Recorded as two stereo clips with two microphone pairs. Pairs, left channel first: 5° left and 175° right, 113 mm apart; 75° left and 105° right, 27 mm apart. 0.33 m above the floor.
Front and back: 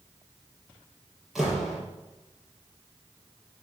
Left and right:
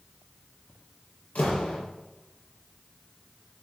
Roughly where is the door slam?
Left.